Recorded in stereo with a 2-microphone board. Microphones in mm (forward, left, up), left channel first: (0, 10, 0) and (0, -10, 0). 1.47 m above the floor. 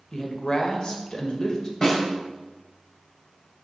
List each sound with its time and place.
0.1 s a woman speaking: 40° left (ahead or behind), 1.5 m
1.8 s a snare drum: 20° left (ahead or behind), 2.5 m